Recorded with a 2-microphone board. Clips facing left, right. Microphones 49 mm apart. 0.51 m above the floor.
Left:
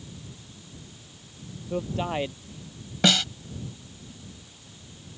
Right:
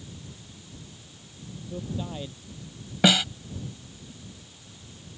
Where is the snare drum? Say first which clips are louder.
Right 2 dB; 10° right (ahead or behind).